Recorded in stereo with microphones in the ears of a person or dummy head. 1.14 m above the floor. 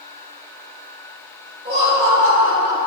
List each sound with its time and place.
1.6 s laughter: 20° right (ahead or behind), 1.9 m; by 2.8 s 45° right (ahead or behind), 2.0 m